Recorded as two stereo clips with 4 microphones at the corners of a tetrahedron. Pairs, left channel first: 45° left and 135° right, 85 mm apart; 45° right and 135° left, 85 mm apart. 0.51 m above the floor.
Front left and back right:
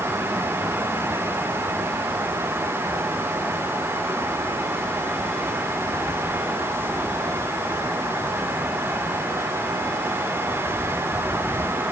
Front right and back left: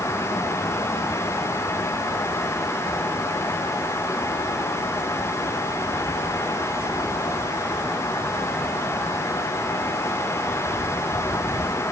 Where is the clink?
I don't hear a clink.